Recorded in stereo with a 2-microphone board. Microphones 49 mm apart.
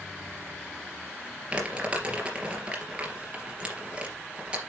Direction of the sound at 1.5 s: 20° right (ahead or behind).